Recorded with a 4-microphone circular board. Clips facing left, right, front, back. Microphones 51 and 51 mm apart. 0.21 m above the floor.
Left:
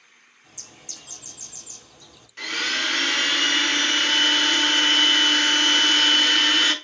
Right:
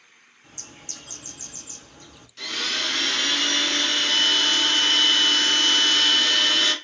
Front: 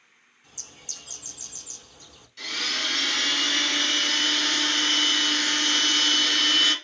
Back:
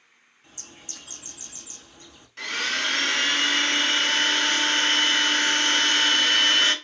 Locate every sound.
0.4 s a bird: 125° right, 0.8 m
2.4 s a blender: 145° left, 0.9 m